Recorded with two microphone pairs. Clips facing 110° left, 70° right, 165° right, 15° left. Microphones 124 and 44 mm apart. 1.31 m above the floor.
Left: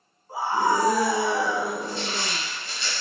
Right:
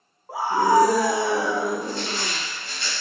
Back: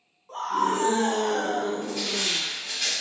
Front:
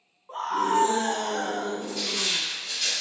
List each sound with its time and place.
0.3 s a scream: 55° right, 1.1 m; by 2.4 s 110° right, 1.7 m
1.8 s crushing: 100° right, 2.0 m